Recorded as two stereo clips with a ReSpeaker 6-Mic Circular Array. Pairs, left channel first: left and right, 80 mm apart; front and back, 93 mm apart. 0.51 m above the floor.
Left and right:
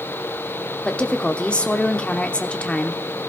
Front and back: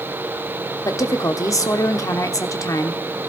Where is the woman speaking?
20° left, 1.0 m.